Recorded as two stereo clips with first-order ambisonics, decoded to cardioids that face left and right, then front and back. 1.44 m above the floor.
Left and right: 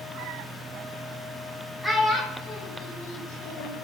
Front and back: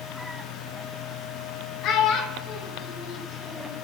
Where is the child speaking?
Straight ahead, 0.8 m; by 3.7 s 65° left, 1.6 m.